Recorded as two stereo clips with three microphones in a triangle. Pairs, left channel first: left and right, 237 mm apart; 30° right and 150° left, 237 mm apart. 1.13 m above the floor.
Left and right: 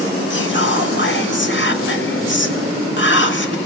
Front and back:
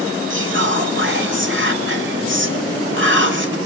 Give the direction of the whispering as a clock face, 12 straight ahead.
8 o'clock.